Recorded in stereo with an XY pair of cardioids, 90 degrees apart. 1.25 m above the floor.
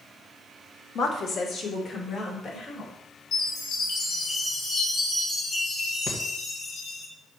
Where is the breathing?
65° left, 2 m.